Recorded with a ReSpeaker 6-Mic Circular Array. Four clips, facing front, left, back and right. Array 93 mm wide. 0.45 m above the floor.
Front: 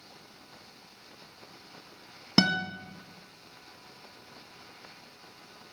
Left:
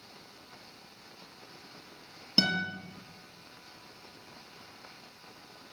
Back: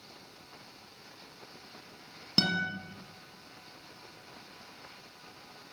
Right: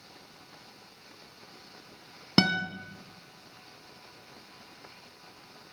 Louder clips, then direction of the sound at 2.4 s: Right 5 dB, front 5 dB; 55° right.